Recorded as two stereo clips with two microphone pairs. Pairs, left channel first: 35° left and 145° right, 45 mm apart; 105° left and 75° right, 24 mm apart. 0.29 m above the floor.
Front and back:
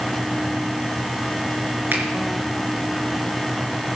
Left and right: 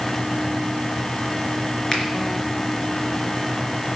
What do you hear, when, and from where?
1.9 s a finger snap: 170° left, 3.5 m